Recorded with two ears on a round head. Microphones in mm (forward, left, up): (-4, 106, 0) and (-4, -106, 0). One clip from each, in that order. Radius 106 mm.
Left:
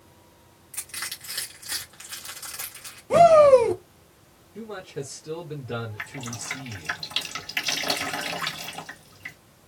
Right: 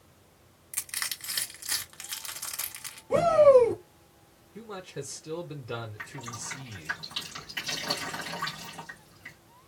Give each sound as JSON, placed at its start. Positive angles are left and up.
{"t": 0.7, "sound": "crushing", "side_deg": -35, "distance_m": 1.5}
{"t": 3.1, "sound": "a shout", "side_deg": 35, "distance_m": 1.2}
{"t": 4.5, "sound": "a man speaking", "side_deg": -15, "distance_m": 1.0}
{"t": 6.0, "sound": "dripping", "side_deg": 35, "distance_m": 2.5}